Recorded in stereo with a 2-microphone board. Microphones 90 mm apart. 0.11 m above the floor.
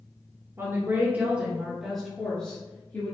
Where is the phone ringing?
I don't hear a phone ringing.